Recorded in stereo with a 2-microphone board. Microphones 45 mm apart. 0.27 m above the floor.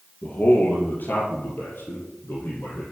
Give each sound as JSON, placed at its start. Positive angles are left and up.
{"t": 0.2, "sound": "a man speaking", "side_deg": 40, "distance_m": 5.5}